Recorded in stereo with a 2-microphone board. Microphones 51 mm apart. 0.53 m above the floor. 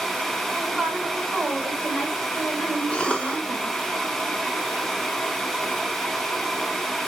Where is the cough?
20° left (ahead or behind), 0.7 m.